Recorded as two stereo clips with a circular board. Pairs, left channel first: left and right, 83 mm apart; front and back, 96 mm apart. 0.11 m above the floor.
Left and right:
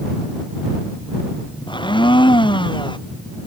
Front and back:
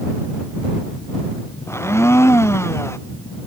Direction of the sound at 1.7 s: 65° left.